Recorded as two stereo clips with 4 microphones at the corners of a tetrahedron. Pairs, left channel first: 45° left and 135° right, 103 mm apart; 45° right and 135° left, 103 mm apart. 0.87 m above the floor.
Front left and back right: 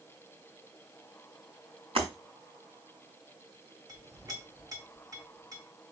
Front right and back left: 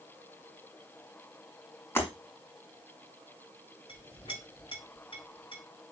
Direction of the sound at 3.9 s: 80° right.